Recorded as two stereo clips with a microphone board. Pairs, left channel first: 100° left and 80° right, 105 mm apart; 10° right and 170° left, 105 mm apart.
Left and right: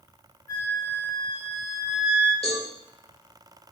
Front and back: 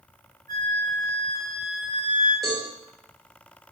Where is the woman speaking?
No woman speaking in this recording.